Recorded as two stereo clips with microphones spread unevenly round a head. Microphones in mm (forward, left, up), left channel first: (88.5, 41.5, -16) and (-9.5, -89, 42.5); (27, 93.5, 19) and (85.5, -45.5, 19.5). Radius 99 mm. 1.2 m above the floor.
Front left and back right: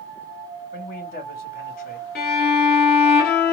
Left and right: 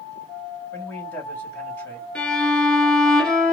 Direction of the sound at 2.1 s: 30° left.